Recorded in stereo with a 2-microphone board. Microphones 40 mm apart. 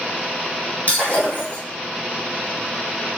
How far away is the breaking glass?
About 2.5 m.